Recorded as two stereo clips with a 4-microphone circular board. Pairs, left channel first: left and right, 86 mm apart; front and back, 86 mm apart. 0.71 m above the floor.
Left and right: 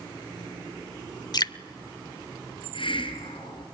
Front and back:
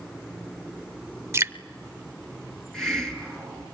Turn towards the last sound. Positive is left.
turn(degrees=85)